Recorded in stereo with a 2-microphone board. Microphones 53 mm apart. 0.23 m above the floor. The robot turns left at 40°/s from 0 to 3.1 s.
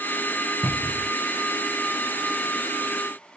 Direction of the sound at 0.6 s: 15° right (ahead or behind).